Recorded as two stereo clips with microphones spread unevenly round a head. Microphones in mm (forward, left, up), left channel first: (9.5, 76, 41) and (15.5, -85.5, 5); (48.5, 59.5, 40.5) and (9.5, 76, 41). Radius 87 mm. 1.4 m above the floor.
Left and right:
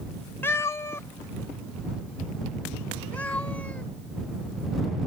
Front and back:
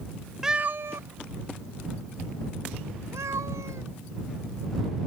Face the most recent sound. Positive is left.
turn(degrees=170)